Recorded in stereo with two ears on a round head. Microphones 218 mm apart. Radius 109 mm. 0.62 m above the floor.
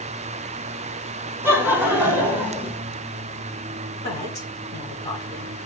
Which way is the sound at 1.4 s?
10° right (ahead or behind).